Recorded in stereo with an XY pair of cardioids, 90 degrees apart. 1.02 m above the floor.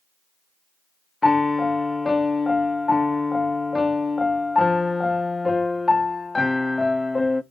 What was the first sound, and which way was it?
A piano, 20° left.